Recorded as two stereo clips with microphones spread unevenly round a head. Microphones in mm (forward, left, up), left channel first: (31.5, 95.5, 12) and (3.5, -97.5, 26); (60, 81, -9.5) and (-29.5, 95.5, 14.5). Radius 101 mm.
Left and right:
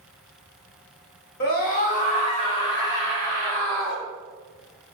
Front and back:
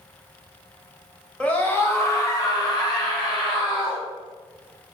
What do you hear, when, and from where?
1.4 s a scream: 55° left, 1.2 m; by 4.0 s straight ahead, 2 m